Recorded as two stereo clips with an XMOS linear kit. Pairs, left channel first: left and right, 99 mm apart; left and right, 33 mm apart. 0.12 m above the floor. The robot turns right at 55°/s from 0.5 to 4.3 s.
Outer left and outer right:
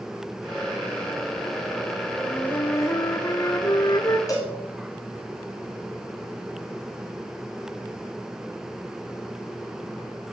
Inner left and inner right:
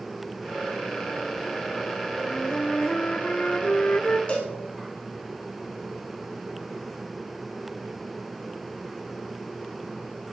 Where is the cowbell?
35° left (ahead or behind), 9.5 m.